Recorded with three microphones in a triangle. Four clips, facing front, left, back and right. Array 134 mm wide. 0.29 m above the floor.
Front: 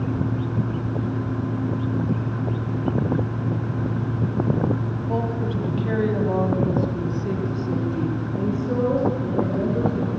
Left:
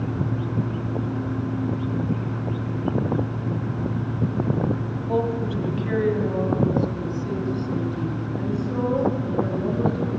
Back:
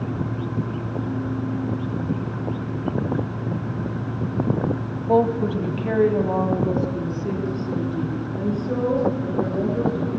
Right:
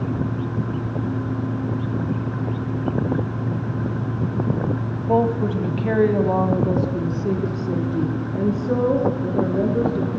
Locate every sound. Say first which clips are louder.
5.1 s a woman speaking: right 5 dB, back 8 dB; 140° right, 1.6 m; by 10.1 s 75° right, 5 m